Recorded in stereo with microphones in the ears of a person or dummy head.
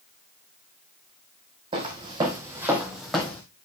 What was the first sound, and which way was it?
Footsteps, 35° right (ahead or behind).